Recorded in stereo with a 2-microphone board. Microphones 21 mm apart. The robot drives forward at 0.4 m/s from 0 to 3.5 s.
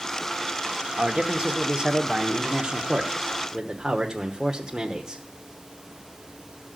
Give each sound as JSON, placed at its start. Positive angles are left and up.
{"t": 1.0, "sound": "a man speaking", "side_deg": -35, "distance_m": 1.0}